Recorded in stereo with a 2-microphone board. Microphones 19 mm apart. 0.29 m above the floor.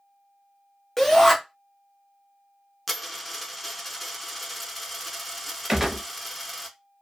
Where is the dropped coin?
Centre (ahead or behind), 0.7 m.